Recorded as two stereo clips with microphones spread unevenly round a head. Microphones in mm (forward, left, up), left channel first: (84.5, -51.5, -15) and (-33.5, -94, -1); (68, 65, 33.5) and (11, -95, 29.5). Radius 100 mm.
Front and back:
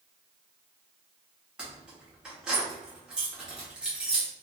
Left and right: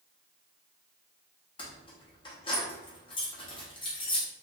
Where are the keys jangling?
125° left, 0.5 m.